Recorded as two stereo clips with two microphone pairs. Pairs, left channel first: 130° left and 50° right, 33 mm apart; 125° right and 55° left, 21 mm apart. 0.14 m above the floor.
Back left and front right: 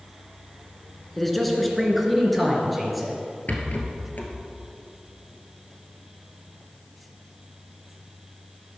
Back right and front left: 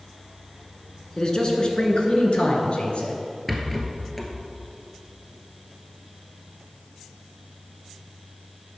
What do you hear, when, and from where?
1.2 s a man speaking: 150° right, 1.3 m; by 3.1 s 135° right, 2 m
3.5 s a rattle: 150° left, 1.3 m